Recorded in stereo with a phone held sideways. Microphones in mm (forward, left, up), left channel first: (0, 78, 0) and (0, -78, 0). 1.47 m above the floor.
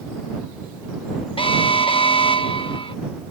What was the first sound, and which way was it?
An alarm, 35° left (ahead or behind).